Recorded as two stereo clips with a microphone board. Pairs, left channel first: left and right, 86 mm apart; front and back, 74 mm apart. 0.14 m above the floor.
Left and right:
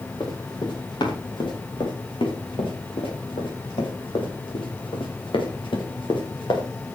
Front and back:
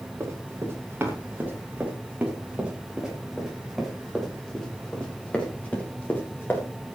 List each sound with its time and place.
0.2 s running footsteps: 120° left, 8 m; by 6.7 s 60° left, 6.5 m